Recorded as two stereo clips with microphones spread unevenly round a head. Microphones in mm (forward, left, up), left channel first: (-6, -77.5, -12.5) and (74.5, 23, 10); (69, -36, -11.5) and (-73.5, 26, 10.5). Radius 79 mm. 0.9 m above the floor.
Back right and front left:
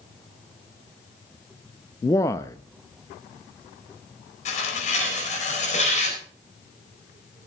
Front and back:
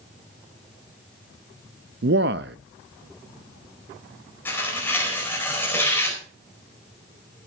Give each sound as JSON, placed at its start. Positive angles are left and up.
{"t": 2.0, "sound": "a man speaking", "azimuth_deg": 170, "distance_m": 0.6}
{"t": 4.5, "sound": "tearing paper", "azimuth_deg": -100, "distance_m": 4.5}